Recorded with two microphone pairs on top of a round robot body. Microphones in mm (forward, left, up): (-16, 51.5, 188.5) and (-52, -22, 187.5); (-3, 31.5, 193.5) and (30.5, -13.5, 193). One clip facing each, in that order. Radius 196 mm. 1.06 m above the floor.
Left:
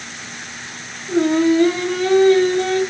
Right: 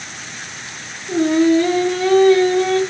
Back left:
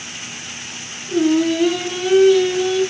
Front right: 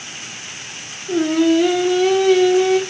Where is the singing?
25° right, 0.9 m.